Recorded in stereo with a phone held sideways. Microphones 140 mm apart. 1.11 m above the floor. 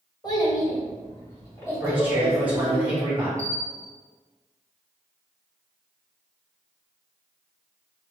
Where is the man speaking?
10° right (ahead or behind), 1.7 m.